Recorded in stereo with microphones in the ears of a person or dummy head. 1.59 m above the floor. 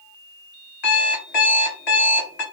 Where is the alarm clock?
50° left (ahead or behind), 1.8 m.